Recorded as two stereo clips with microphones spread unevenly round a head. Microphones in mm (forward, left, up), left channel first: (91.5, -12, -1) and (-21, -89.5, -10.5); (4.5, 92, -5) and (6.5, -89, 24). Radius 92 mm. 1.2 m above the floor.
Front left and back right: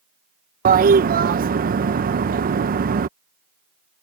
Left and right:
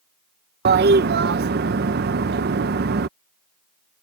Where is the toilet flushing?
125° right.